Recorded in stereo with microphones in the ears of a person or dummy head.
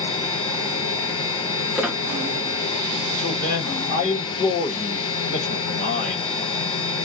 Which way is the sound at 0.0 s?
25° left (ahead or behind).